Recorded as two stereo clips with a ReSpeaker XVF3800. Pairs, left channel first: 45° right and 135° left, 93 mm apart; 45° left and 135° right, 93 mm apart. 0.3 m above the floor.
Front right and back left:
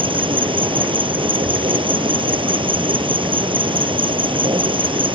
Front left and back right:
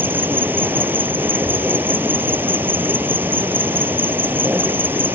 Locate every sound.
0.0 s an insect: 155° left